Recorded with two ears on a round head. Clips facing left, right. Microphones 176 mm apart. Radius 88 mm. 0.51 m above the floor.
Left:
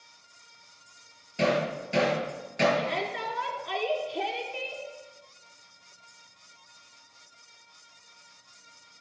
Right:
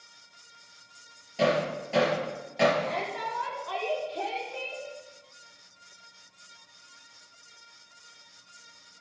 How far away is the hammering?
About 5 m.